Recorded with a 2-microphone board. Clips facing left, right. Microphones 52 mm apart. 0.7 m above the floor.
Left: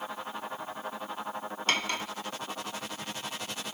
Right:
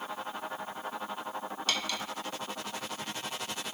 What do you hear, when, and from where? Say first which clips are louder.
1.7 s cutlery clinking: left 5 dB; 40° left (ahead or behind), 0.7 m